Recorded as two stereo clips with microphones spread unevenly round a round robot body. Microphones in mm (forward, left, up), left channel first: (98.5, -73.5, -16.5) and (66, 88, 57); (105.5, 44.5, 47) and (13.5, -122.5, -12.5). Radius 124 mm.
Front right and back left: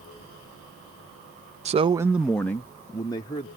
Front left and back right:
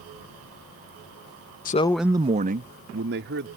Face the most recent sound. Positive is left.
turn(degrees=-140)